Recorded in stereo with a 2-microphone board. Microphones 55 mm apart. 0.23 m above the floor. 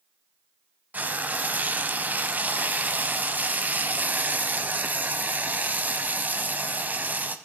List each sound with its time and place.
0.9 s frying: 35° right (ahead or behind), 0.7 m